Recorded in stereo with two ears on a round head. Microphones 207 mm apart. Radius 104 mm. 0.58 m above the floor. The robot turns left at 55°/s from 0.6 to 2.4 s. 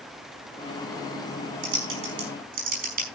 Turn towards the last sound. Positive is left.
turn(degrees=-45)  # may be behind; listen again after turning